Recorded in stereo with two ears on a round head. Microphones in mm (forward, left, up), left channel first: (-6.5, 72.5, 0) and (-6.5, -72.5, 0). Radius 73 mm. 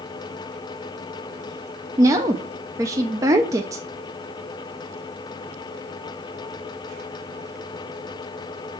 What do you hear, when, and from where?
2.0 s a woman speaking: 20° right (ahead or behind), 0.6 m